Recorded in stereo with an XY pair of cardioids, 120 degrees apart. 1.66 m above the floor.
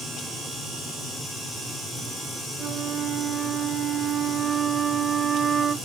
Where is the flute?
45° right, 0.8 m.